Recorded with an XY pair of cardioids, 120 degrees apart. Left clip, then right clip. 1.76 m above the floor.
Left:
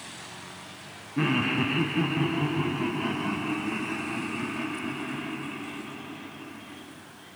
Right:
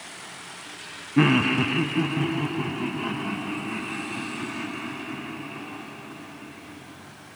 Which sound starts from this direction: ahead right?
Laughter, at 1.2 s.